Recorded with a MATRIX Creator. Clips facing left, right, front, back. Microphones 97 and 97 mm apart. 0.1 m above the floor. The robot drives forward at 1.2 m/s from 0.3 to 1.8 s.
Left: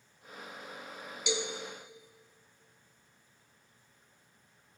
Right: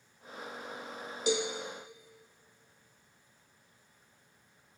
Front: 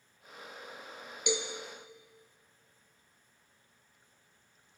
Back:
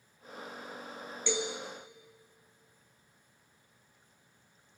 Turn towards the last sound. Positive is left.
turn(degrees=-140)